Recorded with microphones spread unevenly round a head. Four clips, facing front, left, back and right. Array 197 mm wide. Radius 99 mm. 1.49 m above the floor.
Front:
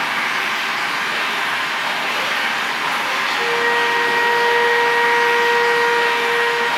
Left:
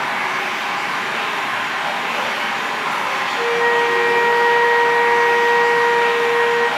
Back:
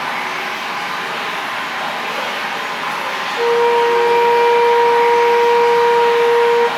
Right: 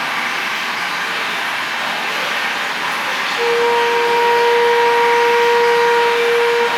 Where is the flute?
175° right, 0.7 m.